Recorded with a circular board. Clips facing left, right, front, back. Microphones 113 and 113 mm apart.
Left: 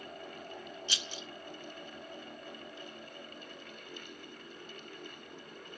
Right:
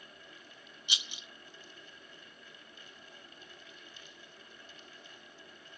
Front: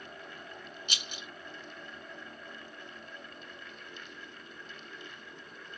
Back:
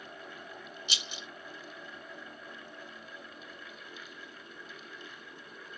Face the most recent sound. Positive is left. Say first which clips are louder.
# left 4 dB, even
turn(degrees=-20)